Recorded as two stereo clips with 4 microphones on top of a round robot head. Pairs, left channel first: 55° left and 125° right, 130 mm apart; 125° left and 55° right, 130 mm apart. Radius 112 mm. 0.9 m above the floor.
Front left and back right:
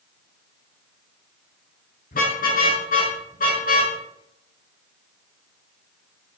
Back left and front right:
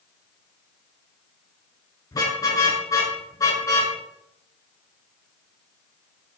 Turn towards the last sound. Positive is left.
turn(degrees=60)